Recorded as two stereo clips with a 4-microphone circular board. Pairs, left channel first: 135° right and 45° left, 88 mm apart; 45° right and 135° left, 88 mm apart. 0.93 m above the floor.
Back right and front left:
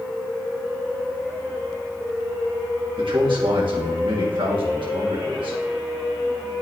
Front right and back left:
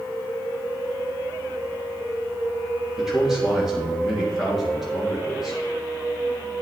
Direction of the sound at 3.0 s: 50° left.